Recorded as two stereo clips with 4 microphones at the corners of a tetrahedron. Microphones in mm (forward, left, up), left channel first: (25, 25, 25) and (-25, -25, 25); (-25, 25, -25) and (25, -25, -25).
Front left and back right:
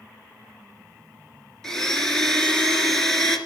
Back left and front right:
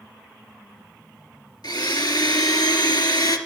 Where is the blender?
125° left, 2 m.